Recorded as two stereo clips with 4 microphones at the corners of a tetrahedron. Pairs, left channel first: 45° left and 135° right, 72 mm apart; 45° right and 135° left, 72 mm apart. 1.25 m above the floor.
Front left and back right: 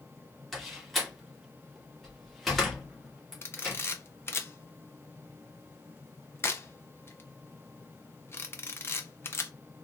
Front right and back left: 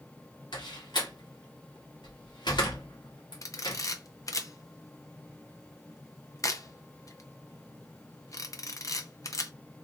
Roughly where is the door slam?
Ahead right.